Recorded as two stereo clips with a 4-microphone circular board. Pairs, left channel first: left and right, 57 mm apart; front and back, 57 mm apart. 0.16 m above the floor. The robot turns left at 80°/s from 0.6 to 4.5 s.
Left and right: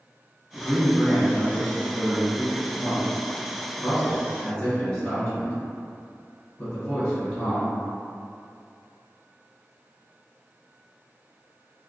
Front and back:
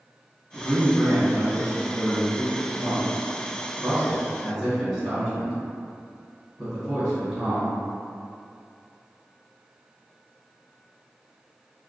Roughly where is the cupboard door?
No cupboard door in this recording.